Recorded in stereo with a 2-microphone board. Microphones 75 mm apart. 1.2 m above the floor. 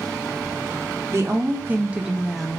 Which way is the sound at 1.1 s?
35° right (ahead or behind).